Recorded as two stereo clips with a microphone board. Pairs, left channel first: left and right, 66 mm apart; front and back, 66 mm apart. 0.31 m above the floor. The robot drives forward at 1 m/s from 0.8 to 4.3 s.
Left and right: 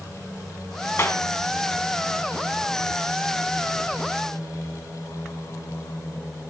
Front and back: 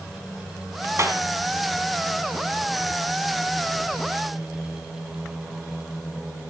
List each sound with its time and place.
1.0 s a clap: 140° left, 2.5 m